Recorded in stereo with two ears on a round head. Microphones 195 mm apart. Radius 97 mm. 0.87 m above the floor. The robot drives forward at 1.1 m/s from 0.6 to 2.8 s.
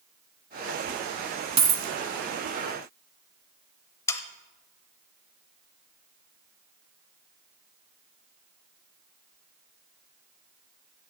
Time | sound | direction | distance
1.6 | a dropped coin | 30° right (ahead or behind) | 1.3 m
4.1 | sawing | 15° left (ahead or behind) | 0.8 m